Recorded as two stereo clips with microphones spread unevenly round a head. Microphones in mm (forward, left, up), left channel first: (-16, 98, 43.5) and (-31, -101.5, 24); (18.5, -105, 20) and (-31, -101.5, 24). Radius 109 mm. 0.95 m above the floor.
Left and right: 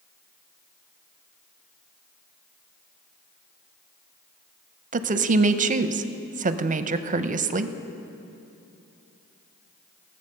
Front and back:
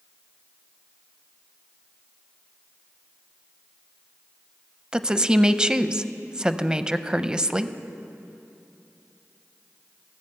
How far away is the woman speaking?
About 0.6 m.